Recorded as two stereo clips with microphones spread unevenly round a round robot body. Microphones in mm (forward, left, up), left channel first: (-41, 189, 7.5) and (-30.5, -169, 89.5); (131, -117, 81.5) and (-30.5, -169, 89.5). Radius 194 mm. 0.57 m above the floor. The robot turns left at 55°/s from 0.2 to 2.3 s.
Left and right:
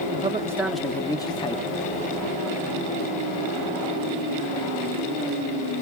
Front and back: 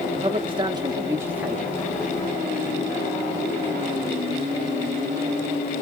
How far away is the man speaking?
About 0.6 m.